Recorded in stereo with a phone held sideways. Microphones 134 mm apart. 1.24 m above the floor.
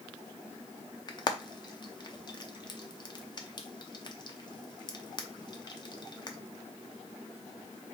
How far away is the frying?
About 0.6 m.